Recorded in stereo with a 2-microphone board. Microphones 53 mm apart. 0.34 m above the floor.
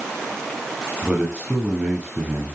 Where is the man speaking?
15° right (ahead or behind), 7 m.